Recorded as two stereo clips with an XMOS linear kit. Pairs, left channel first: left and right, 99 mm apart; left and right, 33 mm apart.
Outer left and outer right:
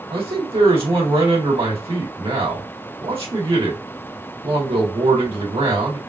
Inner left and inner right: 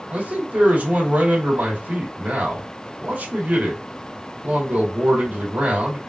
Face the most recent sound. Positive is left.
turn(degrees=-65)  # may be behind; listen again after turning